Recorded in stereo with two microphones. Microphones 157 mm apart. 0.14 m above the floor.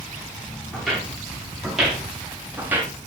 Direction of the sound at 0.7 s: 5° left (ahead or behind).